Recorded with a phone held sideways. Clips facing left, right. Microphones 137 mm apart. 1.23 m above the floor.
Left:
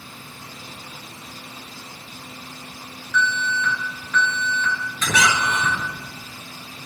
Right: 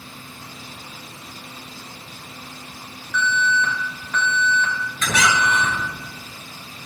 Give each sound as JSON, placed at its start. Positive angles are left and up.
{"t": 3.1, "sound": "an alarm", "side_deg": -50, "distance_m": 3.0}
{"t": 5.0, "sound": "a squeak", "side_deg": 10, "distance_m": 3.5}